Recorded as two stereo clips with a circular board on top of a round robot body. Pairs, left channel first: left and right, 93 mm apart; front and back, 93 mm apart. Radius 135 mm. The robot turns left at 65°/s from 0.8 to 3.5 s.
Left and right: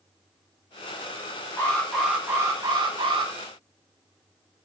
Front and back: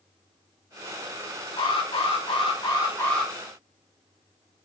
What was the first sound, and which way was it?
An alarm, 25° left.